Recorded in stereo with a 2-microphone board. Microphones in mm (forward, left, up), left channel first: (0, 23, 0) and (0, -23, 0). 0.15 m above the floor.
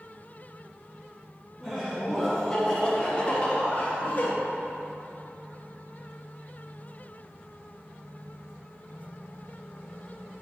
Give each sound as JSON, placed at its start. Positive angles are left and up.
{"t": 1.6, "sound": "laughter", "side_deg": -10, "distance_m": 1.4}